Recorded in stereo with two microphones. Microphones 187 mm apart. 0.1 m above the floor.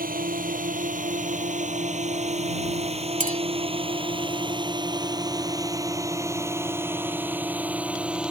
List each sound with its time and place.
0.0 s a drone: 50° right (ahead or behind); by 8.3 s 5° right (ahead or behind)
3.2 s a clink: 45° right (ahead or behind)